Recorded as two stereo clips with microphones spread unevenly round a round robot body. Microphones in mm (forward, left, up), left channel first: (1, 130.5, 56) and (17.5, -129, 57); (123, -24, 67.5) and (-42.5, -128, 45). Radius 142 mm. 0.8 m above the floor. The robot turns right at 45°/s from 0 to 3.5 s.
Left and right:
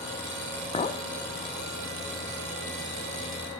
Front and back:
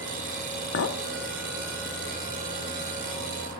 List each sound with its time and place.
0.7 s a clink: 25° left, 0.9 m; by 1.0 s 35° left, 0.9 m